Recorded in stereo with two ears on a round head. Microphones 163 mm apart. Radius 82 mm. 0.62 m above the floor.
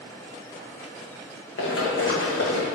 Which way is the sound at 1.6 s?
70° left (ahead or behind).